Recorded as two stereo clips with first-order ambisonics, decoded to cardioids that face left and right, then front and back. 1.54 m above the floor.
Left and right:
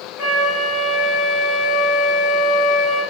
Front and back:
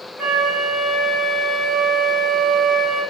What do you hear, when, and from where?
0.2 s a flute: 95° left, 1.8 m